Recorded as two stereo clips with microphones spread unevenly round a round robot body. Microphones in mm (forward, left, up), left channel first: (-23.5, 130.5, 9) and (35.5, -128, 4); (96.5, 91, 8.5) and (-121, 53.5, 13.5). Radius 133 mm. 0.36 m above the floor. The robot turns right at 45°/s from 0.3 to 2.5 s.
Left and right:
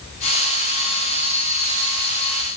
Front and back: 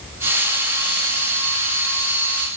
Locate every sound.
Only background noise.